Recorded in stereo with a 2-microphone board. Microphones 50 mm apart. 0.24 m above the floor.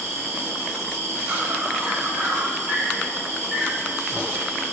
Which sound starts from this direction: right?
An insect, at 0.0 s.